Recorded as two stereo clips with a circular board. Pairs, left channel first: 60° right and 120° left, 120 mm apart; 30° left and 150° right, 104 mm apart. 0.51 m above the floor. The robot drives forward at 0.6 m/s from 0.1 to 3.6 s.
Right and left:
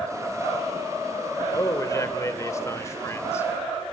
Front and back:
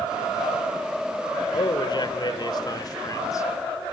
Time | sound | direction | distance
1.5 | a man speaking | straight ahead | 2.5 m